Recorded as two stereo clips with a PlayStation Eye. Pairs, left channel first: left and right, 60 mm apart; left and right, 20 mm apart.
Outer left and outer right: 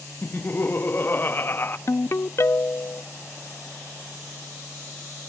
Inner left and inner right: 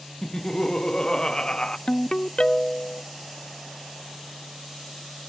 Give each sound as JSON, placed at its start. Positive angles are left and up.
{"t": 0.2, "sound": "laughter", "side_deg": 35, "distance_m": 0.6}
{"t": 1.9, "sound": "a ringtone", "side_deg": 45, "distance_m": 0.5}